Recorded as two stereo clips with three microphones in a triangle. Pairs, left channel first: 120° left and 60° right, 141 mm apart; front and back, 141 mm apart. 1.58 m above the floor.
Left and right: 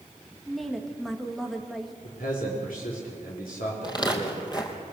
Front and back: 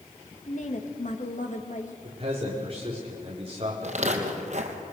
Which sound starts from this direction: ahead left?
A woman speaking, at 0.5 s.